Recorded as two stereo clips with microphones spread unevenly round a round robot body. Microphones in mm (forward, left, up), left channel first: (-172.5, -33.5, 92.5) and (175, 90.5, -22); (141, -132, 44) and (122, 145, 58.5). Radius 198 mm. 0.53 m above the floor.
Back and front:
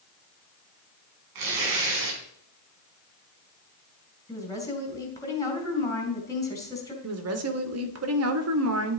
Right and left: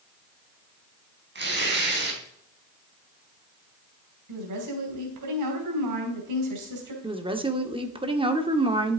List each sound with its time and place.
1.4 s tearing paper: 45° left, 3.5 m
4.3 s a woman speaking: 115° left, 3.5 m
7.0 s a woman speaking: 25° left, 1.7 m